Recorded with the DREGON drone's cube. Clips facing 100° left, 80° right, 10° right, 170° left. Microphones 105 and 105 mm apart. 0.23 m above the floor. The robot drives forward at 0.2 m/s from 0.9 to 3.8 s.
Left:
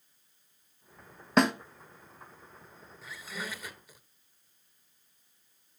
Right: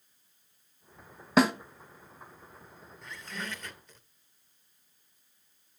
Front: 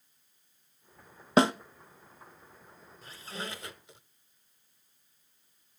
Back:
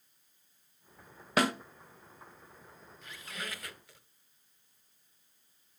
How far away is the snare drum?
About 0.6 m.